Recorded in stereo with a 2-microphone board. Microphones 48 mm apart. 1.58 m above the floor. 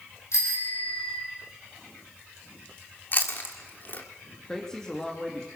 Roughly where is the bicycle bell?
Left.